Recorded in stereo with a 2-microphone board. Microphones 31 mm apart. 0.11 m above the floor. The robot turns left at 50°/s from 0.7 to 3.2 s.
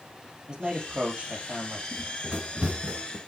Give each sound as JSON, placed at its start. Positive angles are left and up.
{"t": 0.5, "sound": "a man speaking", "azimuth_deg": -30, "distance_m": 3.0}
{"t": 1.9, "sound": "running footsteps", "side_deg": -5, "distance_m": 3.0}